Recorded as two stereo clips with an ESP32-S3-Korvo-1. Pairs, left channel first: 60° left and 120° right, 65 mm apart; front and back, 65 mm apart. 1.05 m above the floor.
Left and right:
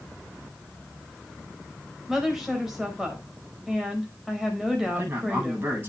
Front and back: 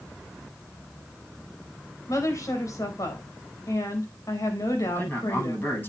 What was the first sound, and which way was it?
A woman speaking, 35° right.